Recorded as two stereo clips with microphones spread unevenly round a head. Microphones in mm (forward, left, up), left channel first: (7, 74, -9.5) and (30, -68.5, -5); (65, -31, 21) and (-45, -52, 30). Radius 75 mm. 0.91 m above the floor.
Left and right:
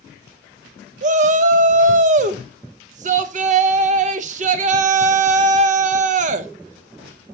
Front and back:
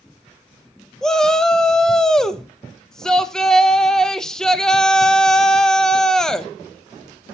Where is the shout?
70° right, 0.6 m.